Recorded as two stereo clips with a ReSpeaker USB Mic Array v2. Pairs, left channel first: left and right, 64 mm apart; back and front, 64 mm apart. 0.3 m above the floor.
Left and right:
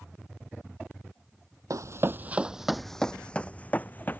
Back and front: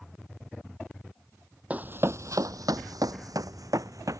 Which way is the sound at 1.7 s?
65° right.